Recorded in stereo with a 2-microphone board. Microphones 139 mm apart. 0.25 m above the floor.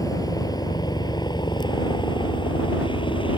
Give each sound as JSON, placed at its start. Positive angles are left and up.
{"t": 0.0, "sound": "a helicopter", "side_deg": 25}